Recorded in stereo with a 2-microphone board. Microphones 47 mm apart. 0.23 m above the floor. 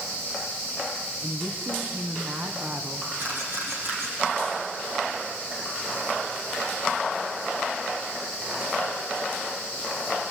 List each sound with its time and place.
1.2 s a woman speaking: 50° right (ahead or behind), 2.5 m
3.2 s a camera shutter: 60° right (ahead or behind), 9 m